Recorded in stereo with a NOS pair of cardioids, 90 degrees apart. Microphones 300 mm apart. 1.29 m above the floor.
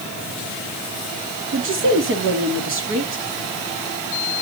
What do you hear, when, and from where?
1.5 s a woman speaking: 45° right, 3 m